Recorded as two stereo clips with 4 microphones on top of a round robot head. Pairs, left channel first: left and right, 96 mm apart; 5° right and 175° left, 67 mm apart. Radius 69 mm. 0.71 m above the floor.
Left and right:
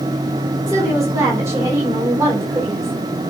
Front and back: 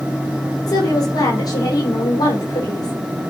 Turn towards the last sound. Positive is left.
turn(degrees=-30)